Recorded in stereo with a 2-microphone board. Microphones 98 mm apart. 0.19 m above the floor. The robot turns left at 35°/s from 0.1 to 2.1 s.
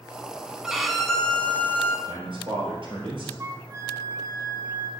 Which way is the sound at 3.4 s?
40° right (ahead or behind).